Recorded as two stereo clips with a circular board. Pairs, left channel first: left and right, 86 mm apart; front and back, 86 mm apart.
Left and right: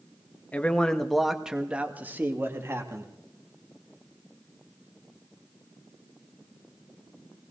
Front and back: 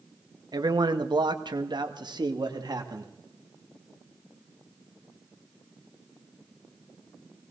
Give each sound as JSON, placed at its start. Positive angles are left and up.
{"t": 0.5, "sound": "a man speaking", "azimuth_deg": 160, "distance_m": 1.3}